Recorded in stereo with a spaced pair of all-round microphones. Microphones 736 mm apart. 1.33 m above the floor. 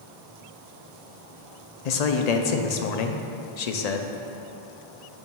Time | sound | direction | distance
1.9 | a man speaking | 65° left (ahead or behind) | 0.6 m